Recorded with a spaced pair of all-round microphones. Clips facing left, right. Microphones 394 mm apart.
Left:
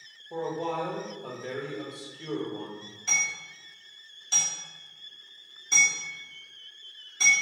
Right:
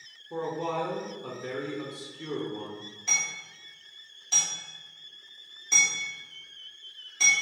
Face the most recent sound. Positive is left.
turn(degrees=25)  # may be behind; listen again after turning